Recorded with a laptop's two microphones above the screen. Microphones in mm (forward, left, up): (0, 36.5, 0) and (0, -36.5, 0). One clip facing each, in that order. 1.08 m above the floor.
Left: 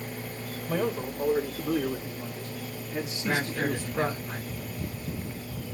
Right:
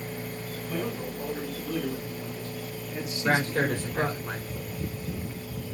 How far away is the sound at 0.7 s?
About 5 m.